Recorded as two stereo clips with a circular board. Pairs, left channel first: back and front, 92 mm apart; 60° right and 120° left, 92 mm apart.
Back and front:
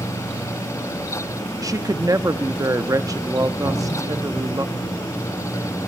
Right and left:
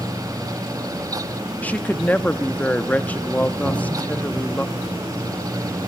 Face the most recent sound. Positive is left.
turn(degrees=140)